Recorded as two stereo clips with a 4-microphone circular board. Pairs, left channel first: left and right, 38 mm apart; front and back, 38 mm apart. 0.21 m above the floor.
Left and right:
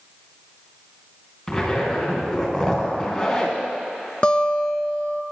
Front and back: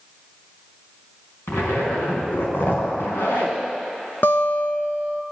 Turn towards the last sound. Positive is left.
turn(degrees=25)